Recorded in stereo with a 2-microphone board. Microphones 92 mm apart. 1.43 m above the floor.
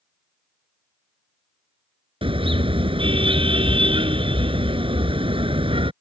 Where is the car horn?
75° right (ahead or behind).